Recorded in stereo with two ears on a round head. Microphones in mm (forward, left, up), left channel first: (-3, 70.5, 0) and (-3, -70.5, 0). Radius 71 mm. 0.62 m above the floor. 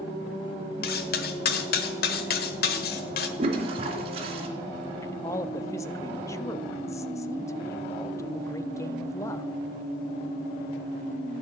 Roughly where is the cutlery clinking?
Left.